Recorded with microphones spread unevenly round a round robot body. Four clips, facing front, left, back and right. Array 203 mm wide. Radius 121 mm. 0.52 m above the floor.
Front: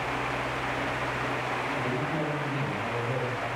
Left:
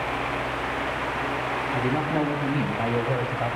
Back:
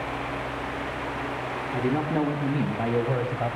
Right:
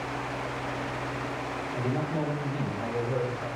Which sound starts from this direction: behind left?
A man speaking, at 1.7 s.